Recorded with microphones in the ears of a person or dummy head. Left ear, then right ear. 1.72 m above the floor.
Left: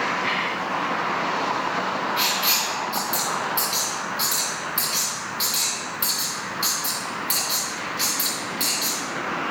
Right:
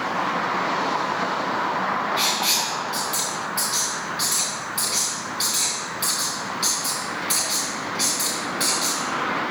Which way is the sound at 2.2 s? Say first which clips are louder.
Left 1 dB; centre (ahead or behind).